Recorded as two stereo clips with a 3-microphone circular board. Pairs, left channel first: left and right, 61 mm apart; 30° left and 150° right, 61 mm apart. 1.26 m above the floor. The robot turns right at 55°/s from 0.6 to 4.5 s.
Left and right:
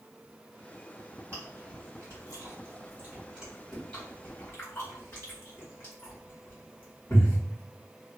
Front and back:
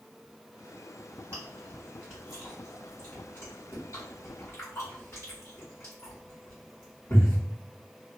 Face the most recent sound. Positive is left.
turn(degrees=45)